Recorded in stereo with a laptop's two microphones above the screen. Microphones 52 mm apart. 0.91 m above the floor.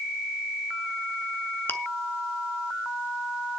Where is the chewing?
50° left (ahead or behind), 1.3 m.